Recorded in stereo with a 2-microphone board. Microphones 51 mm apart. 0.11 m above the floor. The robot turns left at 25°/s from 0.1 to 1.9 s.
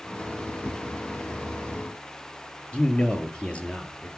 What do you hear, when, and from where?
0.6 s a whoosh: 40° left (ahead or behind), 5 m
2.7 s a man speaking: 25° left (ahead or behind), 1.9 m